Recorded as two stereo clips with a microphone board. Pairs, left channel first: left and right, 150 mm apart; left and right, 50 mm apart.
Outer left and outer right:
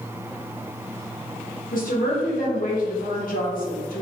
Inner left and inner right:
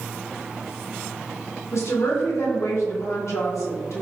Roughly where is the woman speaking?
Left.